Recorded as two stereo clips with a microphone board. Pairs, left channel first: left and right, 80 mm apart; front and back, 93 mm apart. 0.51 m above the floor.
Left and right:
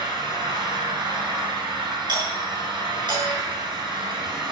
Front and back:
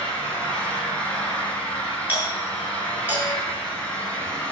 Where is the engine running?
75° right, 8.5 m.